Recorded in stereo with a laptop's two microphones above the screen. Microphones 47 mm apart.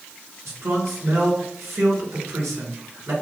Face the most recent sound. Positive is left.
turn(degrees=-85)